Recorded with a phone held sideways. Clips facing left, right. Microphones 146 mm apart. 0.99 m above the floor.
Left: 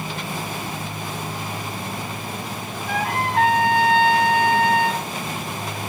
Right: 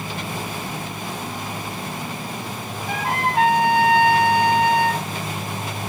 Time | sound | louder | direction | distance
2.9 | a trumpet | even | 15° right (ahead or behind) | 7 m